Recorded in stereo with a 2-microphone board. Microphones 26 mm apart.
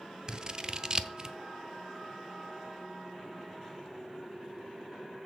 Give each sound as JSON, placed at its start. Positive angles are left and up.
{"t": 0.3, "sound": "scissors", "side_deg": -35, "distance_m": 0.7}